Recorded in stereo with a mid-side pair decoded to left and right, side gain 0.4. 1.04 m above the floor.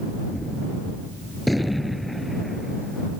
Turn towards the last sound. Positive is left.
turn(degrees=10)